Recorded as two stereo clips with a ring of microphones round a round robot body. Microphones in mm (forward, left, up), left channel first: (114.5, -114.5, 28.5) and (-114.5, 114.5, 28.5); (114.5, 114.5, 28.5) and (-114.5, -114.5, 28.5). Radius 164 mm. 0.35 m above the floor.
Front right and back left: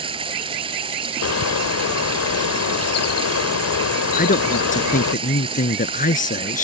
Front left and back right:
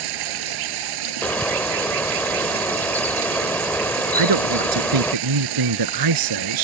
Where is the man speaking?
110° right.